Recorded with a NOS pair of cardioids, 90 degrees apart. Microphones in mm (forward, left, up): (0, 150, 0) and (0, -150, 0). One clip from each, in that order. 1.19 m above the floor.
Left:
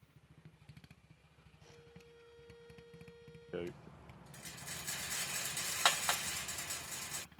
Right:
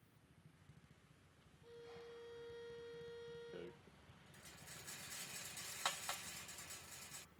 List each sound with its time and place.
1.6 s a violin: 35° right
3.5 s a rattle: 65° left